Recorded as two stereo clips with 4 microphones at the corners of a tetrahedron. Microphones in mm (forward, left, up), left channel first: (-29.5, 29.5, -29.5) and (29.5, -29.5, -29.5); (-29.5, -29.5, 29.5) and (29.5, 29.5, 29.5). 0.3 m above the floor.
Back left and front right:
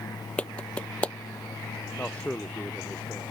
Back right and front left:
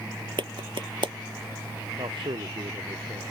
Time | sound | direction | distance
0.4 | a clap | 60° left | ?
2.0 | a man speaking | 60° left | ?